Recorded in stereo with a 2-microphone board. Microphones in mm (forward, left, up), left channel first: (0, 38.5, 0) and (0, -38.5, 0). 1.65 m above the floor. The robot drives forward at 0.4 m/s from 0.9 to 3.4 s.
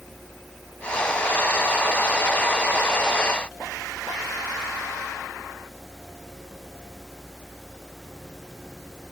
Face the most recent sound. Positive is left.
No sound to turn to.